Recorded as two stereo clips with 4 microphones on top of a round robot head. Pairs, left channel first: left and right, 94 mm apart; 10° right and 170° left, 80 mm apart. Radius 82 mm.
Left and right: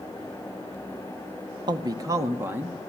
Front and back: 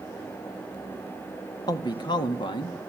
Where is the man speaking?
45° right, 1.7 m; by 2.8 s 15° right, 2.0 m.